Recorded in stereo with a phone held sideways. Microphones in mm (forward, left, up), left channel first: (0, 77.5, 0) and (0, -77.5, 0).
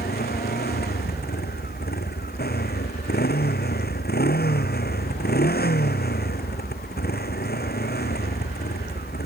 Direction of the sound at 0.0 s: 90° left.